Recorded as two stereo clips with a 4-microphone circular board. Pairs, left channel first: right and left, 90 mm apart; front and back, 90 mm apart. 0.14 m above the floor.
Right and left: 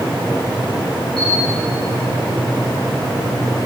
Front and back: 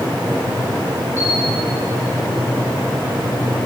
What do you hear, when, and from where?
1.2 s a camera shutter: 60° left, 8.5 m